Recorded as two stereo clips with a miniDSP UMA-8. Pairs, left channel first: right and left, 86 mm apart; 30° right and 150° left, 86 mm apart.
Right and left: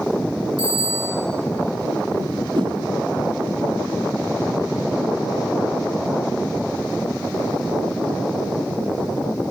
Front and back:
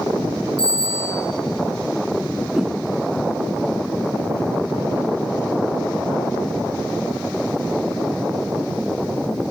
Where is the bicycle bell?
50° right, 8.5 m.